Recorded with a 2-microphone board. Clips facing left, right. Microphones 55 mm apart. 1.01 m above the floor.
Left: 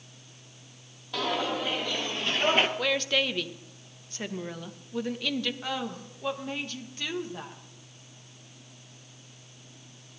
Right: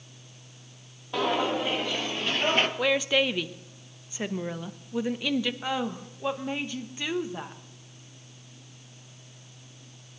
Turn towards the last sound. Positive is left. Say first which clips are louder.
# right 3 dB
turn(degrees=-15)  # may be behind; listen again after turning